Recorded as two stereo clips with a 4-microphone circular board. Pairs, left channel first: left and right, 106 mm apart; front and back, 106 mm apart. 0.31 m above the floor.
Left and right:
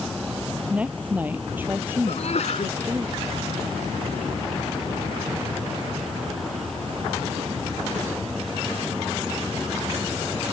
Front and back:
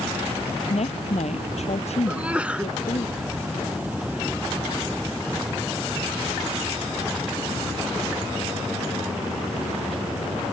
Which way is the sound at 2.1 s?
100° left.